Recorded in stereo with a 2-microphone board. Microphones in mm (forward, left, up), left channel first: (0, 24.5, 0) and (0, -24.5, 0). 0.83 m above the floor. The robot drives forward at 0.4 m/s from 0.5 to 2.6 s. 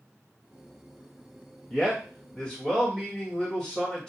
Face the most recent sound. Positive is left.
turn(degrees=15)  # may be behind; listen again after turning